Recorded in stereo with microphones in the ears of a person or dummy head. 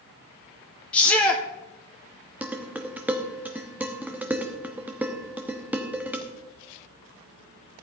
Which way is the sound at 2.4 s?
10° right (ahead or behind).